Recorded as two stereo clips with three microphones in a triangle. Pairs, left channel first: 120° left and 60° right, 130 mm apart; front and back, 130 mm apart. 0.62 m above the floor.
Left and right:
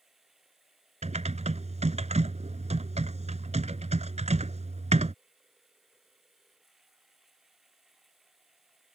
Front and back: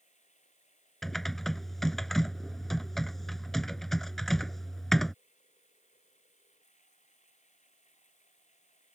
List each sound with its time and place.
0.0 s running water: 25° left
1.0 s typing on a keyboard: 85° right